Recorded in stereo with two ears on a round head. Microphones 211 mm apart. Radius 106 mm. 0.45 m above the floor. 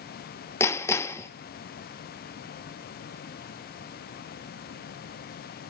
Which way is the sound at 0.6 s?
10° left (ahead or behind).